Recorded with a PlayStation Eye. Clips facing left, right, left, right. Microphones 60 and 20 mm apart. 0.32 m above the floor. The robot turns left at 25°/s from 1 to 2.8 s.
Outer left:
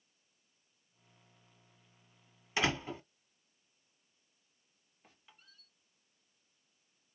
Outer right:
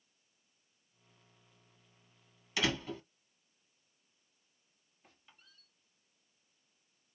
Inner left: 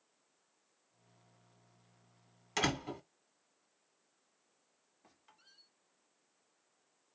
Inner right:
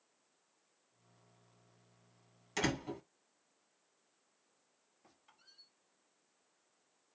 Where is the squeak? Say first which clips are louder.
Outer left 1 dB, even; 10° left (ahead or behind), 2 m.